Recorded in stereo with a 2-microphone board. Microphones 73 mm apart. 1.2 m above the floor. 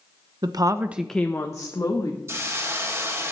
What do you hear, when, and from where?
0.4 s a woman speaking: 65° right (ahead or behind), 0.9 m; by 2.2 s 55° left (ahead or behind), 2.0 m
2.3 s a hiss: 35° right (ahead or behind), 1.9 m